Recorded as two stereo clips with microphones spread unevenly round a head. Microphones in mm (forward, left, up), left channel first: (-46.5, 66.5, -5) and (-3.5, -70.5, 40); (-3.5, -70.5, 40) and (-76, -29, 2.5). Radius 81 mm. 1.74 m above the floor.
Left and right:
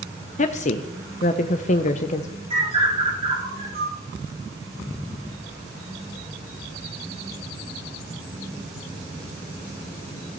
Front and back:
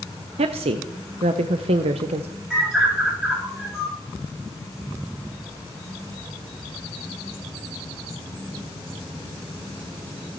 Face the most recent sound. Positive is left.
turn(degrees=-120)